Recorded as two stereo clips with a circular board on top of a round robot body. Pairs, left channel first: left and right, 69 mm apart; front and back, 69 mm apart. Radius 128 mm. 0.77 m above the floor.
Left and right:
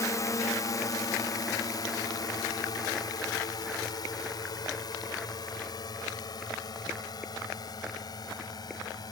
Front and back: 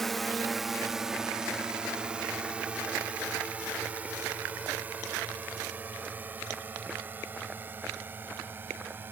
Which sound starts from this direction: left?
A drone, at 0.0 s.